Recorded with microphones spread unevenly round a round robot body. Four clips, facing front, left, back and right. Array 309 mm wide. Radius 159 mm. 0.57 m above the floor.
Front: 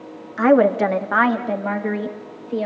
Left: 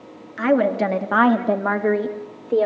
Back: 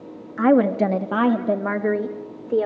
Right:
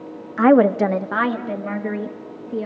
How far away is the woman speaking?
About 1.2 m.